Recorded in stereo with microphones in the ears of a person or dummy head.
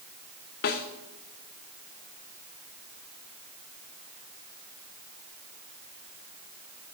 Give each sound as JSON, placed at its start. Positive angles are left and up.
{"t": 0.6, "sound": "a snare drum", "side_deg": 50, "distance_m": 0.7}